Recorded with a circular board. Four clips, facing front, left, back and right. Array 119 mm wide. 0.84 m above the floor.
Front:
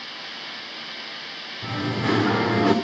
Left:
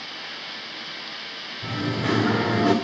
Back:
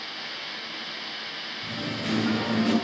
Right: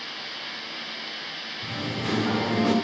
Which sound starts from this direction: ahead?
Singing, at 1.6 s.